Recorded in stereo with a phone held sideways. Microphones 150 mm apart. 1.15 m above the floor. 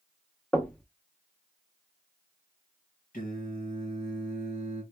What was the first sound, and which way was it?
Knocking, 5° left (ahead or behind).